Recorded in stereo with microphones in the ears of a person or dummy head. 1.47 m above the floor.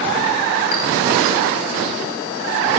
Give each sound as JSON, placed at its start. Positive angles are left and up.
{"t": 0.7, "sound": "a clink", "side_deg": 60, "distance_m": 3.5}